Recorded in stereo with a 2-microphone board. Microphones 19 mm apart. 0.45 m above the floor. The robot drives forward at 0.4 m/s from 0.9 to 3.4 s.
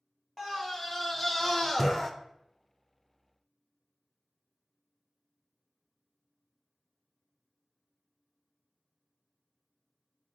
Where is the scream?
15° left (ahead or behind), 1.3 m; by 2.1 s 20° left (ahead or behind), 1.0 m.